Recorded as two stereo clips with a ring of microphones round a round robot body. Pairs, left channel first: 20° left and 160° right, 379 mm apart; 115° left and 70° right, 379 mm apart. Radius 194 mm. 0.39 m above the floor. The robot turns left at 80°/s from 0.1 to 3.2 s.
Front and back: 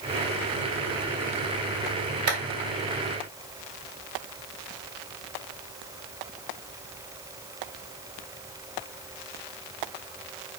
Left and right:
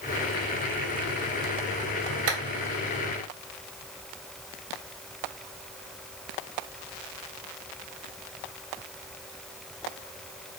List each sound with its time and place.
2.3 s a clap: 115° right, 2 m; by 2.4 s 125° right, 2 m